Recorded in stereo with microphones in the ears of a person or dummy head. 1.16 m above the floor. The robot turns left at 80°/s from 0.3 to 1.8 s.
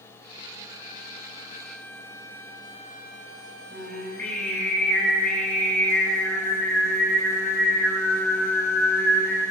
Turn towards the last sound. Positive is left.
turn(degrees=5)  # may be behind; listen again after turning